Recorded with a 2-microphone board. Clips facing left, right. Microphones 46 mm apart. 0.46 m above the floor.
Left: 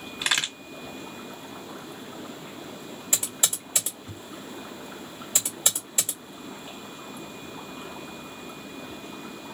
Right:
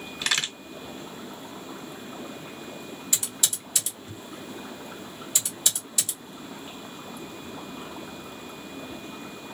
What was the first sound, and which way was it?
A crack, 15° left (ahead or behind).